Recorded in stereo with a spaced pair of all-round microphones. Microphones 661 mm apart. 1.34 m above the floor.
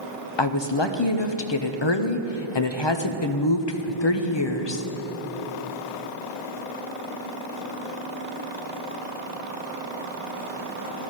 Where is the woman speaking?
45° left (ahead or behind), 0.6 m.